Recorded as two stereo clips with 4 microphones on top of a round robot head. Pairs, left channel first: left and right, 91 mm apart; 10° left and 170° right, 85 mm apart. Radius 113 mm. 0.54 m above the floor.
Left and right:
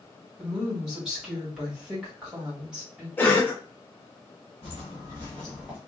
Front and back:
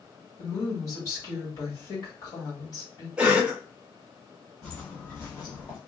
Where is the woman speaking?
10° right, 1.7 m.